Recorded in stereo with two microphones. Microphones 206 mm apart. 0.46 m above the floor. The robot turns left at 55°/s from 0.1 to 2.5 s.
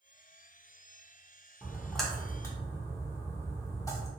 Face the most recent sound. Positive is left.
turn(degrees=15)  # may be behind; listen again after turning